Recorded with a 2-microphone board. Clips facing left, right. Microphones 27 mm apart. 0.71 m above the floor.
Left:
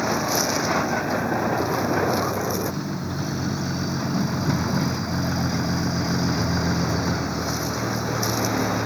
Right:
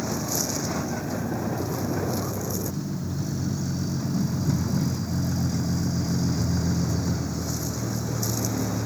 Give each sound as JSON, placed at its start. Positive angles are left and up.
{"t": 0.0, "sound": "a vehicle", "side_deg": 40}